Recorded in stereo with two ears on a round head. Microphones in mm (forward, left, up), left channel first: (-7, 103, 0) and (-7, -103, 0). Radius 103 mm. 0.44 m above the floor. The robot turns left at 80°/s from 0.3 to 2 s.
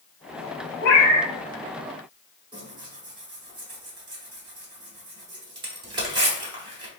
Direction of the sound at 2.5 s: 20° right (ahead or behind).